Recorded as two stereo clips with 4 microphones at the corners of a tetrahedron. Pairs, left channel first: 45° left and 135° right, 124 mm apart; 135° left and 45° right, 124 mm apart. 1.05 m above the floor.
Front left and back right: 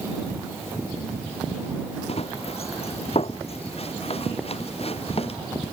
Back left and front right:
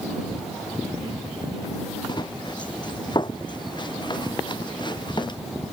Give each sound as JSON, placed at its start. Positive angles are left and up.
{"t": 2.1, "sound": "running footsteps", "azimuth_deg": 80}